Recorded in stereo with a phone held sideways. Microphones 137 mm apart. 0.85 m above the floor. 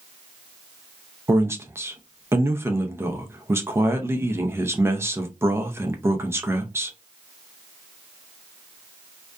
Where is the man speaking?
20° right (ahead or behind), 0.5 m.